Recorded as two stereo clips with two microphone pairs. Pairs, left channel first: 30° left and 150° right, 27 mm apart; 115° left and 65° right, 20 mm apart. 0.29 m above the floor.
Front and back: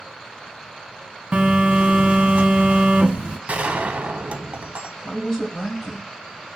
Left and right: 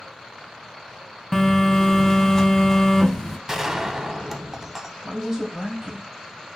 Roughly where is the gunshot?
Behind right.